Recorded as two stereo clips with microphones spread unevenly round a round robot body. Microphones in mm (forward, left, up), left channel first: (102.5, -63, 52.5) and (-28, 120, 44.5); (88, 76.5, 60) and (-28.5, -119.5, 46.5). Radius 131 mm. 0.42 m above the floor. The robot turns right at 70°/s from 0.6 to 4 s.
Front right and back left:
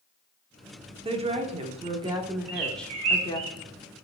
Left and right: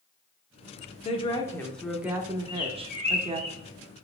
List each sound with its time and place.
1.1 s a woman speaking: 100° left, 0.8 m; by 3.5 s 90° right, 0.8 m
2.5 s a bird: 105° left, 1.3 m; by 3.6 s straight behind, 1.3 m